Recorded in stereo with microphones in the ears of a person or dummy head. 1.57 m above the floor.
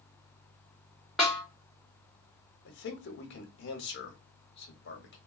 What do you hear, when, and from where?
1.2 s a snare drum: centre (ahead or behind), 1.2 m
2.6 s a man speaking: 60° left (ahead or behind), 0.8 m